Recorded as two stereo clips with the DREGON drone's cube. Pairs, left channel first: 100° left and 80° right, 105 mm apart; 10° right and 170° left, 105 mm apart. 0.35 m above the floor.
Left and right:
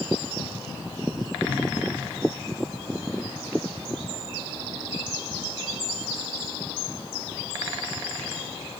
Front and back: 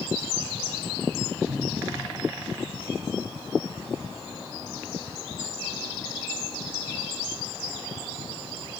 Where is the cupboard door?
170° right, 3.5 m.